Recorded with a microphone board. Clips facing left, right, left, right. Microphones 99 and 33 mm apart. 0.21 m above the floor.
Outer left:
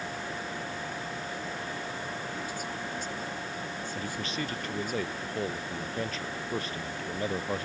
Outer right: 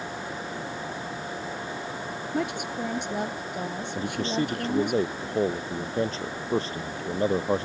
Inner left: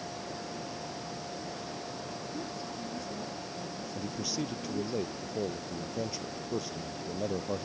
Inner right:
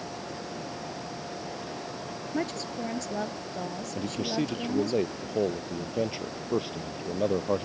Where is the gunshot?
I don't hear a gunshot.